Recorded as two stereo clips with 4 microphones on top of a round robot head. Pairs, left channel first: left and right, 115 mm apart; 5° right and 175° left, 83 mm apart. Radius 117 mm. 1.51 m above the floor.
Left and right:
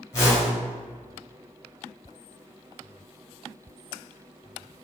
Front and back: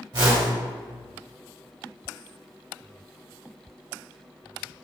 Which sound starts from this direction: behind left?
A whoosh, at 0.1 s.